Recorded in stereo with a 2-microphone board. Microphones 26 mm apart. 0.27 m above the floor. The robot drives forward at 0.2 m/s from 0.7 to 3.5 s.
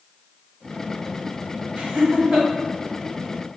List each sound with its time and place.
1.8 s laughter: 40° right (ahead or behind), 1.3 m